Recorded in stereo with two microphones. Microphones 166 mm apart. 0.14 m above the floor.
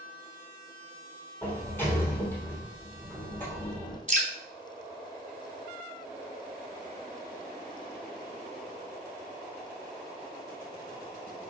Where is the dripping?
50° right (ahead or behind), 1.0 m.